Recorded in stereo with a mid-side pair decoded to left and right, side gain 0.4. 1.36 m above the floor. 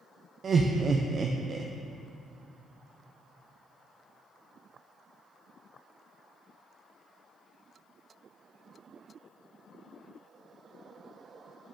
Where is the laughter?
50° right, 0.5 m.